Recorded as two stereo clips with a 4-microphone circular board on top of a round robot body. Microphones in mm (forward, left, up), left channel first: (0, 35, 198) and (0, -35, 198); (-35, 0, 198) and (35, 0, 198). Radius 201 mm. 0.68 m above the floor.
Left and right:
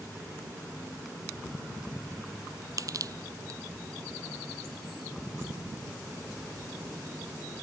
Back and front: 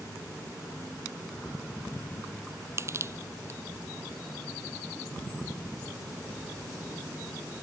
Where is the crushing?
50° right.